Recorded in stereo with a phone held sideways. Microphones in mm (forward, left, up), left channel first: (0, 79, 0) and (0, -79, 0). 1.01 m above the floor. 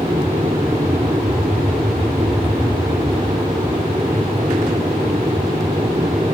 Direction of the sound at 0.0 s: 35° right (ahead or behind).